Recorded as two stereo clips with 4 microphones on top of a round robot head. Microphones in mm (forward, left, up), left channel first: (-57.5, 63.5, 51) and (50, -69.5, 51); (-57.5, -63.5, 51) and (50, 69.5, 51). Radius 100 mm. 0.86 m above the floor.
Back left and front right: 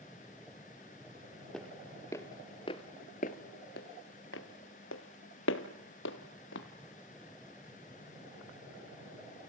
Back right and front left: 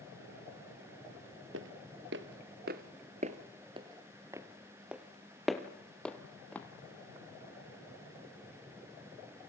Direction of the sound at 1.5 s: 45° left.